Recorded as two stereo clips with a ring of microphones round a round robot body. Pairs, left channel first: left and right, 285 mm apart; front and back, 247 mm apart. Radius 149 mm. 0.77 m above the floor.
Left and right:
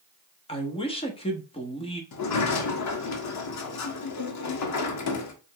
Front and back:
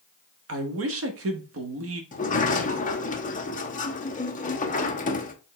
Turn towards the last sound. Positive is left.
turn(degrees=60)